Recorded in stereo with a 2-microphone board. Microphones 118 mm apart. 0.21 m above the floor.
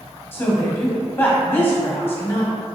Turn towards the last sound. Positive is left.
turn(degrees=20)  # may be behind; listen again after turning